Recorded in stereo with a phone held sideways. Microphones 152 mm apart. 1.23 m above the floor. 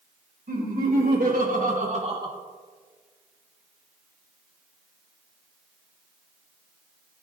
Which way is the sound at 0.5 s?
80° right.